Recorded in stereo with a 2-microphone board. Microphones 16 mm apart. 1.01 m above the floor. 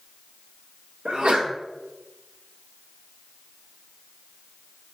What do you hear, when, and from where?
1.1 s a sneeze: 65° right (ahead or behind), 0.7 m